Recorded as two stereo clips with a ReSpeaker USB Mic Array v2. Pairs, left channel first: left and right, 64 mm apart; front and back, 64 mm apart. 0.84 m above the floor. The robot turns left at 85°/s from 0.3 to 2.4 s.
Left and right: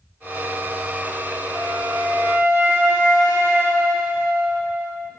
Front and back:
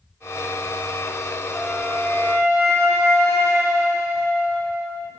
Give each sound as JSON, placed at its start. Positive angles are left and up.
{"t": 1.5, "sound": "a flute", "azimuth_deg": -70, "distance_m": 3.5}